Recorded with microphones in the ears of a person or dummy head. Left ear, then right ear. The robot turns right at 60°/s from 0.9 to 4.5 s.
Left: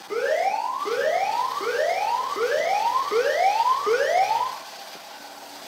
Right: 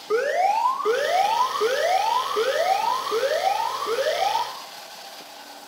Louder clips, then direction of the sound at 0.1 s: Right 2 dB; 125° right.